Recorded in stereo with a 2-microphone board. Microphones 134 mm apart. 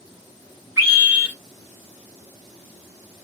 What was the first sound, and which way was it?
A scream, 20° right (ahead or behind).